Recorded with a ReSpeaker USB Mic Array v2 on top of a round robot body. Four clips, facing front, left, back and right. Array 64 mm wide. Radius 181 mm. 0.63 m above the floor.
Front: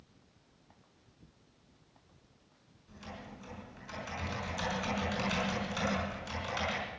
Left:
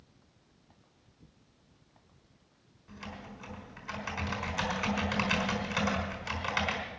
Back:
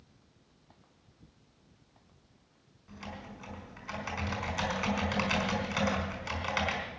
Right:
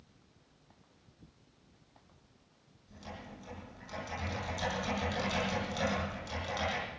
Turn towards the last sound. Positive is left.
turn(degrees=135)